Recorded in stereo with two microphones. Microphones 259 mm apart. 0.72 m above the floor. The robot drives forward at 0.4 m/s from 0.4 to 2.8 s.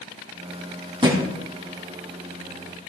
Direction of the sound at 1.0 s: 20° right (ahead or behind).